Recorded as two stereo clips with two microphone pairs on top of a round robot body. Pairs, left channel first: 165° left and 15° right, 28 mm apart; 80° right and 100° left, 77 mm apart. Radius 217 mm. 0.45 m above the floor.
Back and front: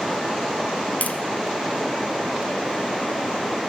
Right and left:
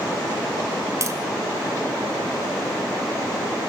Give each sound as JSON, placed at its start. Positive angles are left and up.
{"t": 1.0, "sound": "tapping", "azimuth_deg": 150, "distance_m": 3.0}